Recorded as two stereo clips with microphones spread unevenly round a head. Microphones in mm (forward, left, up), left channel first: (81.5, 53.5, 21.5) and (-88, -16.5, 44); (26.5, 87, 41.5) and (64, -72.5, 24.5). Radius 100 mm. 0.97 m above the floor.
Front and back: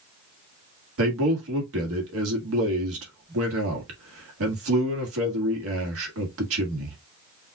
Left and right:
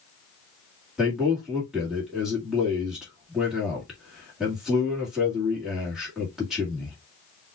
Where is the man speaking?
165° right, 1.8 m.